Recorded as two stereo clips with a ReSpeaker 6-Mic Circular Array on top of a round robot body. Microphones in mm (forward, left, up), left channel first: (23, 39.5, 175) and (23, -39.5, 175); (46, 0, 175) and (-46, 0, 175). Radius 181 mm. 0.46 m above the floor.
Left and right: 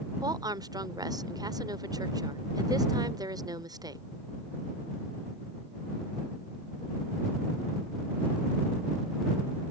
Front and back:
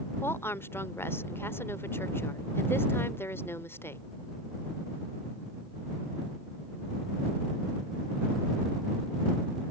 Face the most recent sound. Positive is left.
turn(degrees=-65)